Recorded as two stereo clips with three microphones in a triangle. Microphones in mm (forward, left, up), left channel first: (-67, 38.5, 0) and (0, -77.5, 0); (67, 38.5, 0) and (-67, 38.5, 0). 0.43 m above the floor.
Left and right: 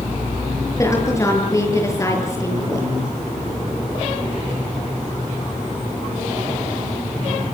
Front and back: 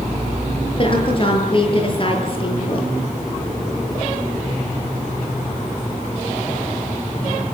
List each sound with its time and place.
0.8 s a woman speaking: 50° left, 8 m